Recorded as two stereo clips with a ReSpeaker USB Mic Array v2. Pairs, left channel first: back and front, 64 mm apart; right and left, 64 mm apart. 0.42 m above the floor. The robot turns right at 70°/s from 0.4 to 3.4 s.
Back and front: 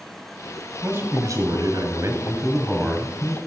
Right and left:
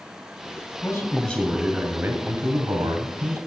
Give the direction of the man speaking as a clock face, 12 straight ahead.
1 o'clock.